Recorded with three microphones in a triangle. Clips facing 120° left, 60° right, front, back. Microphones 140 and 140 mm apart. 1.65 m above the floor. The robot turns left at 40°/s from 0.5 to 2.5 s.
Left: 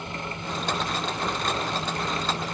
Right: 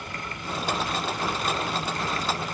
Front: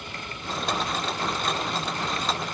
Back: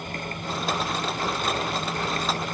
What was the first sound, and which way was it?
Only background noise.